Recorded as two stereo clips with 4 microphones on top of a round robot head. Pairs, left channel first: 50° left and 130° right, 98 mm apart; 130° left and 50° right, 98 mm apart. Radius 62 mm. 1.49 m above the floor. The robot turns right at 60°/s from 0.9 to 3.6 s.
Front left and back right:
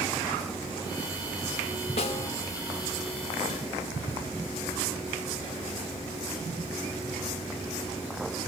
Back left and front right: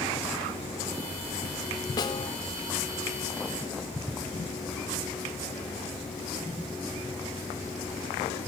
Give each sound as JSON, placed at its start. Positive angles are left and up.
{"t": 2.0, "sound": "a snare drum", "azimuth_deg": 75, "distance_m": 2.5}